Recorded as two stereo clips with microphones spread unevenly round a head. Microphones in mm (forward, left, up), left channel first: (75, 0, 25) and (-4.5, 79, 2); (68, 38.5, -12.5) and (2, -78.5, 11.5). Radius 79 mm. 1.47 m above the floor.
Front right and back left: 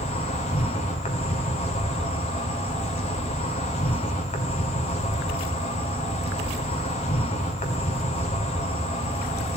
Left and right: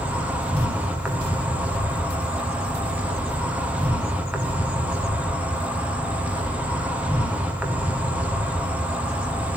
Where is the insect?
35° right, 1.5 m.